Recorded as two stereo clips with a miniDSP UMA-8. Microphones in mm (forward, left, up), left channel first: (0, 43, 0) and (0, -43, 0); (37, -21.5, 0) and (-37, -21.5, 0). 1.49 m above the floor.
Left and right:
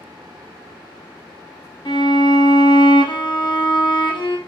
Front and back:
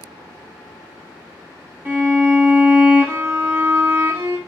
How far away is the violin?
About 0.8 m.